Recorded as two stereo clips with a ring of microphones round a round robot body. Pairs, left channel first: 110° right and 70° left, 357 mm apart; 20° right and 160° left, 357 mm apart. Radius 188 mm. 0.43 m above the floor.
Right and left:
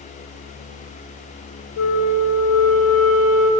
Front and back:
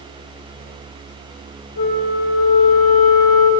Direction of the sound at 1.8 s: 55° right.